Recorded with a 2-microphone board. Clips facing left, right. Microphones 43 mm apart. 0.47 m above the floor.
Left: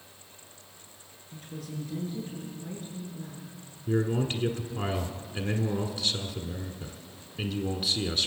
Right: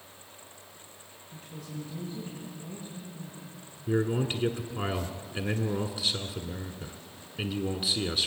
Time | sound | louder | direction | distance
1.3 | a woman speaking | left 2 dB | 55° left (ahead or behind) | 7.5 m
3.9 | a man speaking | even | 5° right (ahead or behind) | 1.2 m